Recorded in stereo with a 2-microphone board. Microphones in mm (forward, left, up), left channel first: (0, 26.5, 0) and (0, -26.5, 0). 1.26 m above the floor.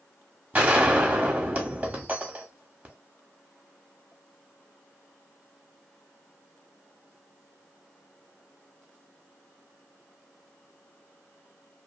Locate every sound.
0.5 s a gunshot: 30° right (ahead or behind), 1.0 m